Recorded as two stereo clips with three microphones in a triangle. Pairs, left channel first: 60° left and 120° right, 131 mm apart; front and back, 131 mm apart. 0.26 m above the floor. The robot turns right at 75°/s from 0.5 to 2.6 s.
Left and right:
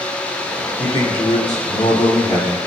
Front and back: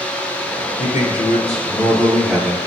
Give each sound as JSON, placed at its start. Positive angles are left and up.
{"t": 0.8, "sound": "a man speaking", "azimuth_deg": -20, "distance_m": 3.5}